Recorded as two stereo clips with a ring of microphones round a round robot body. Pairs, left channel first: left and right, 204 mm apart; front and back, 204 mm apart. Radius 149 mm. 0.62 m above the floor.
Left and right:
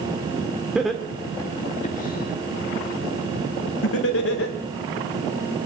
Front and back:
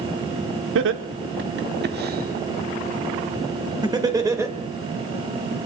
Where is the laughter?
175° right, 1.4 m; by 4.6 s 105° left, 2.5 m.